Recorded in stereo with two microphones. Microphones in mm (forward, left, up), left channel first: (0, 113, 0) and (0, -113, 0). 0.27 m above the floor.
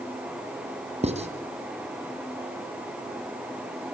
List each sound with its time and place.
1.0 s writing: 30° right (ahead or behind), 2.0 m